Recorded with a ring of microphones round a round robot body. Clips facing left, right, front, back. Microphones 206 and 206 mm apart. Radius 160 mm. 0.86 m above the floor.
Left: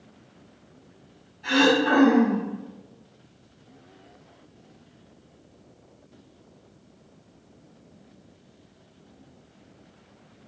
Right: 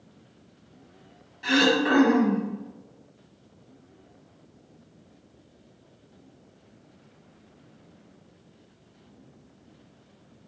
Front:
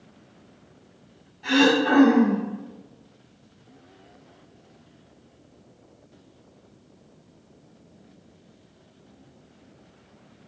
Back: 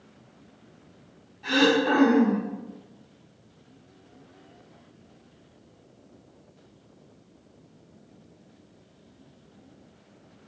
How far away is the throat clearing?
About 1.9 m.